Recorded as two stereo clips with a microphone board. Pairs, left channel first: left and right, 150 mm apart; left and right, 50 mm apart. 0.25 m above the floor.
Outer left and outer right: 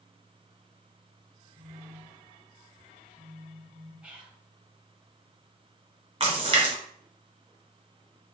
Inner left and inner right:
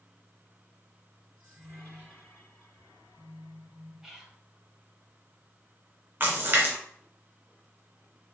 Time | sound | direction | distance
1.6 | a phone buzzing | 35° left (ahead or behind) | 1.4 m
4.0 | whispering | 10° right (ahead or behind) | 1.1 m
6.2 | a splash | 35° right (ahead or behind) | 1.6 m